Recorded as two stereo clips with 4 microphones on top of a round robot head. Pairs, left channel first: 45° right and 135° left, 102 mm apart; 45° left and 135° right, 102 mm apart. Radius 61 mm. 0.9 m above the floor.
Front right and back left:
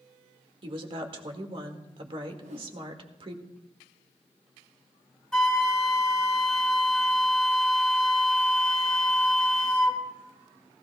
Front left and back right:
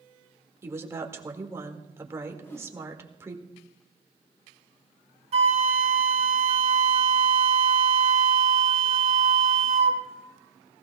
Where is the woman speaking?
165° left, 1.6 m.